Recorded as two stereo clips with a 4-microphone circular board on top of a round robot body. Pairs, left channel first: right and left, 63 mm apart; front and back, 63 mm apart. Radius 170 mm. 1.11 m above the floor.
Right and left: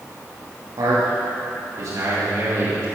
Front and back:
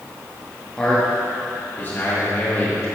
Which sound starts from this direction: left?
A man speaking, at 0.8 s.